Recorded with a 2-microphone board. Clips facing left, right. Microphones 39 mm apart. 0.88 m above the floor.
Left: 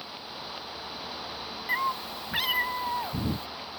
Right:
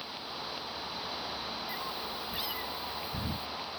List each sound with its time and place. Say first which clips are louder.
1.7 s a cat meowing: left 8 dB; 85° left